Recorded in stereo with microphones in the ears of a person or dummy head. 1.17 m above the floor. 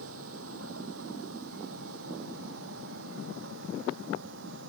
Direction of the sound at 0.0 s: 80° right.